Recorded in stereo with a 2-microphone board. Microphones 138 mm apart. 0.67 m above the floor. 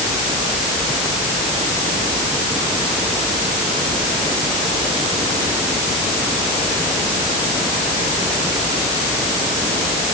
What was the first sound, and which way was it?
Only background noise.